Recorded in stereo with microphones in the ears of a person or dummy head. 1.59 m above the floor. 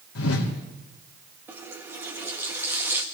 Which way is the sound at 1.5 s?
10° right (ahead or behind).